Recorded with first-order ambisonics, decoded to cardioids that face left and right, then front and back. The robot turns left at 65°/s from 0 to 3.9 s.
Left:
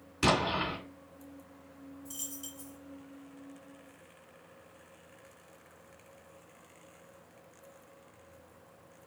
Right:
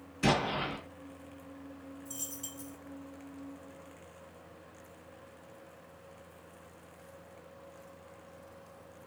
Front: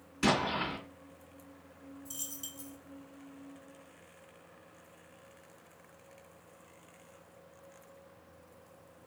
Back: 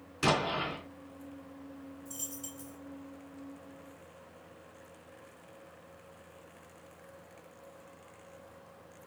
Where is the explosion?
115° left, 1.9 m; by 0.8 s 80° left, 1.9 m.